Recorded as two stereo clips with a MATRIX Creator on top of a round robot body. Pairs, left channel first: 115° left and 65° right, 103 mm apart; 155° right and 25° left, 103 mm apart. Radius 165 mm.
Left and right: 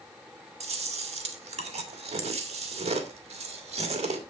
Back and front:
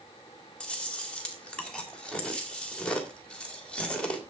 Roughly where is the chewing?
Right.